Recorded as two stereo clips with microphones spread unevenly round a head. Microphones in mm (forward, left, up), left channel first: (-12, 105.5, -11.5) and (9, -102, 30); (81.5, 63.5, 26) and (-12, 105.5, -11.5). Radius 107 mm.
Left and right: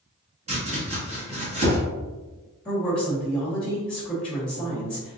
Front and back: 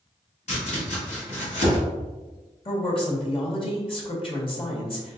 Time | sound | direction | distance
0.5 | chopping | 20° right | 1.8 m
2.6 | a woman speaking | 10° left | 1.7 m